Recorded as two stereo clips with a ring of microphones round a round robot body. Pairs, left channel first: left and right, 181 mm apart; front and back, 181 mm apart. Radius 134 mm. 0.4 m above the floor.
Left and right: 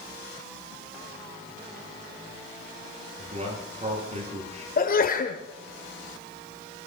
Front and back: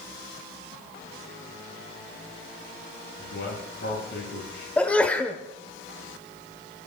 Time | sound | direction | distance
3.2 | a man speaking | 40° right | 9 m
4.8 | a sneeze | 80° left | 1.6 m